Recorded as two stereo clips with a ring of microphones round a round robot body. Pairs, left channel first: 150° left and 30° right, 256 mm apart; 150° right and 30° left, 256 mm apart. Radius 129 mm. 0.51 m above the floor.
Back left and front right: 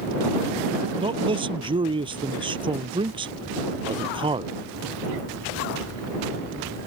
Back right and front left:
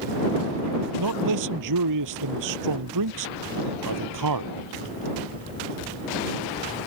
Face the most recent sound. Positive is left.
turn(degrees=40)